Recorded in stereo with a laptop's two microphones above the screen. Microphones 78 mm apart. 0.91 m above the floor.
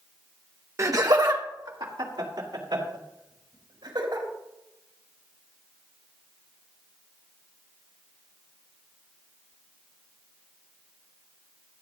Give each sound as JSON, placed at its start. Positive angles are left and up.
{"t": 0.8, "sound": "laughter", "side_deg": -35, "distance_m": 0.8}